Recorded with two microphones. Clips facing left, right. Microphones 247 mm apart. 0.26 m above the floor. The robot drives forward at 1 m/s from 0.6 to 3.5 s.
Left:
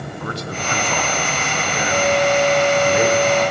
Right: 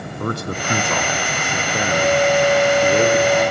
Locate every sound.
0.2 s a man speaking: 50° right (ahead or behind), 2 m; by 3.5 s 25° right (ahead or behind), 4.5 m